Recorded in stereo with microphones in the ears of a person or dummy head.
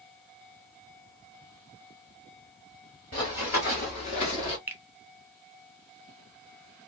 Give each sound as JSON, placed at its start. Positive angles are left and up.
{"t": 3.1, "sound": "running footsteps", "side_deg": 25, "distance_m": 1.4}
{"t": 4.7, "sound": "a finger snap", "side_deg": -15, "distance_m": 0.8}